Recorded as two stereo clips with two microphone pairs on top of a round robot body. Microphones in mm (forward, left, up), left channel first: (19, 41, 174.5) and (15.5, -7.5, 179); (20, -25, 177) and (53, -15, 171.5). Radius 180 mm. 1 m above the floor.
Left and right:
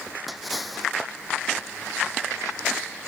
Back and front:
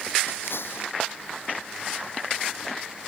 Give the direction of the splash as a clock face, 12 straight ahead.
6 o'clock.